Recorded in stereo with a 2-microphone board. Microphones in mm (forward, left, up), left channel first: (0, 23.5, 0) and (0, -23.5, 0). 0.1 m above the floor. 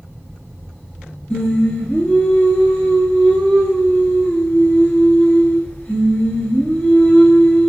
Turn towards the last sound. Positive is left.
turn(degrees=25)  # may be behind; listen again after turning